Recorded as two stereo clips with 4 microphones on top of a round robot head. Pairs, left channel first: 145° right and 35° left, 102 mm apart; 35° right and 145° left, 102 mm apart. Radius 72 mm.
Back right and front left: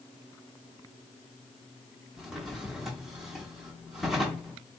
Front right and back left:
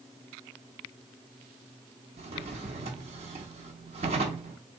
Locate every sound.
2.2 s a drawer: 120° left, 0.6 m